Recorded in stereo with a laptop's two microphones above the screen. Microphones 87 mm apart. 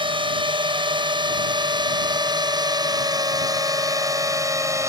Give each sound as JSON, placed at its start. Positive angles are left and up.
{"t": 0.0, "sound": "a drone", "side_deg": -70}